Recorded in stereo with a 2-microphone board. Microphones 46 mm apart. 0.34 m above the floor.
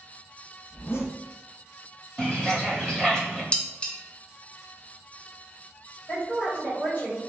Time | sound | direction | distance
0.7 | a zipper | 60° left (ahead or behind) | 0.8 m
2.2 | a bird | 10° left (ahead or behind) | 1.6 m
3.5 | dishes clattering | 20° left (ahead or behind) | 0.5 m
6.1 | a woman speaking | 40° left (ahead or behind) | 1.7 m